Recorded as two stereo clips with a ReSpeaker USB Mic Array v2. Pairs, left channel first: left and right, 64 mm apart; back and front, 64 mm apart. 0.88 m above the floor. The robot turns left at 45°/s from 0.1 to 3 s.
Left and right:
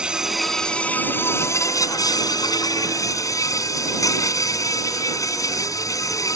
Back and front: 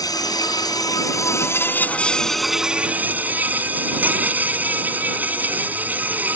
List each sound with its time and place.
0.0 s an insect: 170° right; by 6.4 s 60° left